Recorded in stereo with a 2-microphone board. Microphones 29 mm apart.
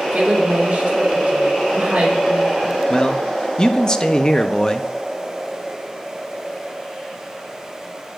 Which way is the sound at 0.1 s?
50° right (ahead or behind).